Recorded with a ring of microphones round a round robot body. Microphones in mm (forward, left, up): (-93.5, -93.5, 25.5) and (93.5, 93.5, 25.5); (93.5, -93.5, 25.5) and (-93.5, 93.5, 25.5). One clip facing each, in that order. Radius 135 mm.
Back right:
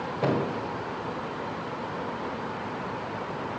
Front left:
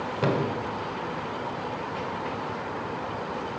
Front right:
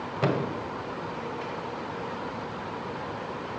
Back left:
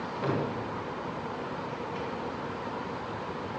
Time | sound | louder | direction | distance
0.2 | a thud | front left 1 dB, front right 3 dB | 20° right | 1.9 m